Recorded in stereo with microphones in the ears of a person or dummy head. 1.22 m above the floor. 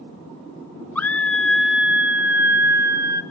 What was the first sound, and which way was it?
A scream, 10° left (ahead or behind).